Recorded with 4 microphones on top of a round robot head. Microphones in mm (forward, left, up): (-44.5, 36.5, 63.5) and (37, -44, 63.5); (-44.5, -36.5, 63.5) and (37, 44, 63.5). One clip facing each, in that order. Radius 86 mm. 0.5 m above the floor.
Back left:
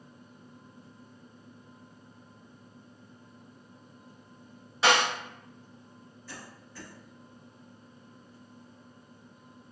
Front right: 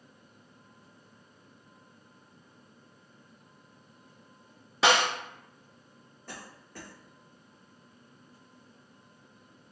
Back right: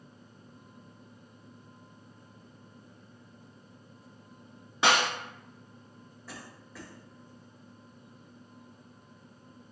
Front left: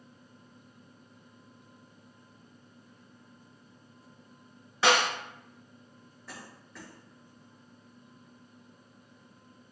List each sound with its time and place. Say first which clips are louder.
4.8 s a snare drum: even, front left 1 dB; 60° right, 1.6 m
6.3 s a cough: front right 2 dB, back right 1 dB; 50° right, 1.4 m